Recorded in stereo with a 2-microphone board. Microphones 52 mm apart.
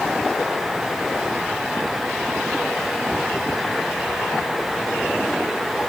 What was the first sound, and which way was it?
Only background noise.